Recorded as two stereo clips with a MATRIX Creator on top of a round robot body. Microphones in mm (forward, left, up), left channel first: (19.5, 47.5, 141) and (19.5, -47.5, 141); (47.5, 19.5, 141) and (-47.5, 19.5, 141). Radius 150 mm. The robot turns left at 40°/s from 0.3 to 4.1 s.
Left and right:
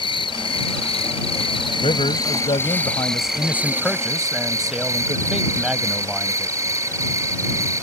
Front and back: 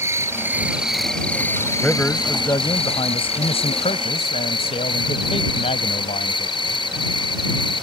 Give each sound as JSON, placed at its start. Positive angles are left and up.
{"t": 0.0, "sound": "an insect", "azimuth_deg": 120}
{"t": 1.8, "sound": "a man speaking", "azimuth_deg": 85}